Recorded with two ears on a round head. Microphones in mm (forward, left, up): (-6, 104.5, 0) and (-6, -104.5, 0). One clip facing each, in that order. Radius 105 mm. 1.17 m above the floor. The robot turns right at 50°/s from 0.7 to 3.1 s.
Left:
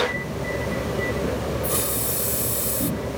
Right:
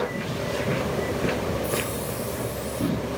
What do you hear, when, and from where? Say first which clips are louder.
1.6 s a hiss: even; 25° left; by 2.9 s 85° left